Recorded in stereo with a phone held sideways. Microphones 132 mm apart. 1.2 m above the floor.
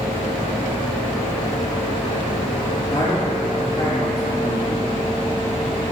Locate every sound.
2.9 s a man speaking: 30° left (ahead or behind), 2.5 m